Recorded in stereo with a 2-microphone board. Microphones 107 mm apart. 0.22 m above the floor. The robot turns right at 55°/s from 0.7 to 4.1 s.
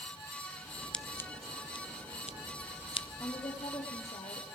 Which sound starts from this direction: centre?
Scissors, at 0.9 s.